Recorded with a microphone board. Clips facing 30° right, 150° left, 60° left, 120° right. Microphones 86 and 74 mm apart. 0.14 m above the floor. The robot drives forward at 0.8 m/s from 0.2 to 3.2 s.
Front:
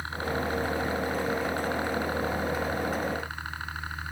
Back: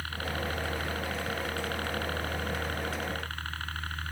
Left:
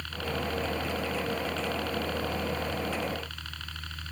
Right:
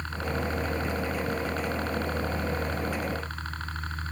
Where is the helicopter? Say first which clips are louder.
Front 4 dB, right 2 dB; 85° right; by 4.1 s 100° right.